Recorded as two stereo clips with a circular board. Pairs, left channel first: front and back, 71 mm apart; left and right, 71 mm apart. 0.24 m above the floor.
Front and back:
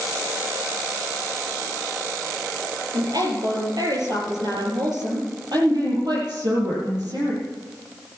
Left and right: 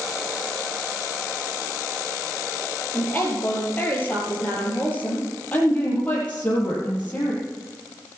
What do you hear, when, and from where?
2.9 s a woman speaking: 155° left, 5 m
5.5 s a woman speaking: 160° left, 7.5 m